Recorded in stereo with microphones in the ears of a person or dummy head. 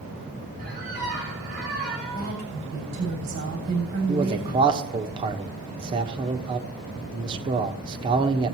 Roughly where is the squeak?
Right.